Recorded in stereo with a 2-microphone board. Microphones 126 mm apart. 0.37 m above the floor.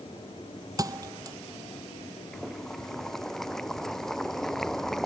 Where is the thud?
30° right (ahead or behind).